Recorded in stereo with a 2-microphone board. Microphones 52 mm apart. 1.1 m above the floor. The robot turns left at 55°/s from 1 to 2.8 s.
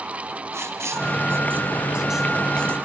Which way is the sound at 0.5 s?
70° right (ahead or behind).